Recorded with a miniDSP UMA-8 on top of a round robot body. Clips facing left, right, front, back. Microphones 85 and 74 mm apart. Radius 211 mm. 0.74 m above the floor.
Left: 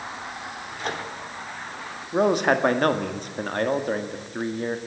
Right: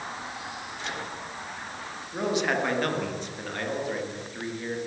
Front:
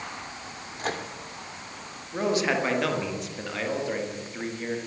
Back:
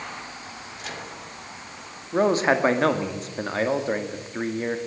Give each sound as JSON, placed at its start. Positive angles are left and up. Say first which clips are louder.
{"t": 0.8, "sound": "a microwave", "louder": "left 6 dB, front 6 dB", "azimuth_deg": 45, "distance_m": 2.5}
{"t": 2.1, "sound": "a man speaking", "louder": "left 7 dB, back 5 dB", "azimuth_deg": 130, "distance_m": 2.5}